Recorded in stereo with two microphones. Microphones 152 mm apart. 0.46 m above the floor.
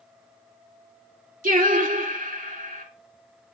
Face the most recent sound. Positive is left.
turn(degrees=-60)  # may be behind; listen again after turning